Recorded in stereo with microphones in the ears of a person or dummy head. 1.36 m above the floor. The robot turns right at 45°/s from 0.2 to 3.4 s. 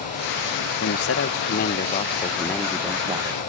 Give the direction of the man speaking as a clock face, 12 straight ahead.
9 o'clock.